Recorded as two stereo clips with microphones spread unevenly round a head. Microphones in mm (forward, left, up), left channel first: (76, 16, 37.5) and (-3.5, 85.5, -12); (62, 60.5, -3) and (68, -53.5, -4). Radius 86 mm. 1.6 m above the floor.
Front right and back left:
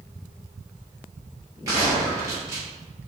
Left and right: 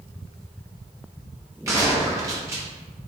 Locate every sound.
1.7 s a gunshot: 130° right, 0.8 m